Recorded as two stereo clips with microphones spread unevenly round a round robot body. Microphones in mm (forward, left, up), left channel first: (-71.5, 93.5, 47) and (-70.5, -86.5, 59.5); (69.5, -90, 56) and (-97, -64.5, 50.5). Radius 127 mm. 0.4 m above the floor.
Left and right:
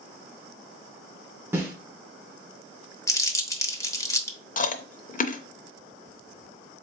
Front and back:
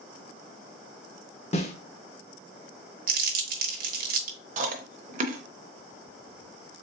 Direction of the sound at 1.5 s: 15° right.